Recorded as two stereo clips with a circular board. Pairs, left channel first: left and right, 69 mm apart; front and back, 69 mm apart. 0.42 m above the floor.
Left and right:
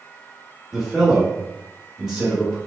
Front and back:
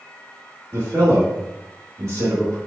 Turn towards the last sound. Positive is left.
turn(degrees=-175)